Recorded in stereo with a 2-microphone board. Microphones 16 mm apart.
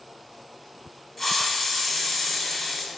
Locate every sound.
1.2 s a hiss: 20° left (ahead or behind), 0.8 m